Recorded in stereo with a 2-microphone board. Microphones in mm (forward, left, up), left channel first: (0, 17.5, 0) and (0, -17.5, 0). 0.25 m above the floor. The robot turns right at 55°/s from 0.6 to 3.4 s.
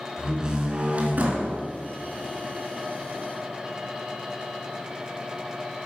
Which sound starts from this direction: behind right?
A door slam, at 0.2 s.